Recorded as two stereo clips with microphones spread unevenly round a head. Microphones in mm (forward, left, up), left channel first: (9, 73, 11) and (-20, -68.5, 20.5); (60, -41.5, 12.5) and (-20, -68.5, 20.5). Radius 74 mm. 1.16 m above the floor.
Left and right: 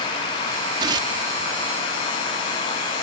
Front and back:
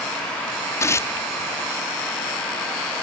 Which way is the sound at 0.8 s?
40° right.